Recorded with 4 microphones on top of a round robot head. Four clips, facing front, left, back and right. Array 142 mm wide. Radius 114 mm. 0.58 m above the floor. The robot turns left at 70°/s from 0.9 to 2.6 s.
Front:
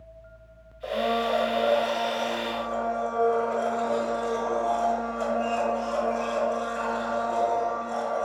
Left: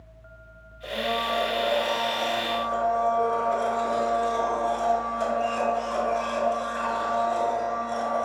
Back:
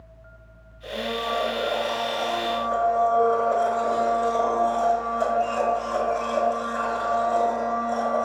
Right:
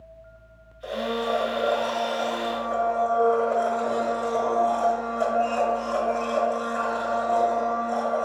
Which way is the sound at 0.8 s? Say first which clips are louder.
Right 1 dB, front 3 dB; 20° right.